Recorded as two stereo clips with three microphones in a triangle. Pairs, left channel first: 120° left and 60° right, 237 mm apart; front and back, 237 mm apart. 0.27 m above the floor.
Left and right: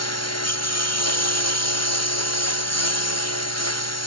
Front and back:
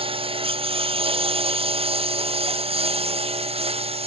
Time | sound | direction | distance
0.0 | a lawn mower | 110° left | ?